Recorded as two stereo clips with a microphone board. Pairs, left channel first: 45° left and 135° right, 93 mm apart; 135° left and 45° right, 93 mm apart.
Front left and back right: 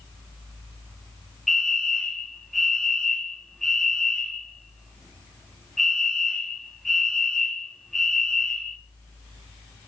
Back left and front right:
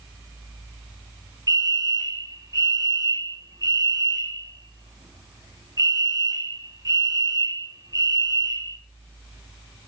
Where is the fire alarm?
40° right, 2.5 m.